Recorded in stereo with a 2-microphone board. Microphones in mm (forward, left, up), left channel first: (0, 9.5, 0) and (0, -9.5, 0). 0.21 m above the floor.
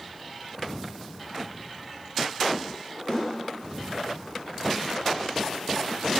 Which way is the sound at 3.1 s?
35° left (ahead or behind).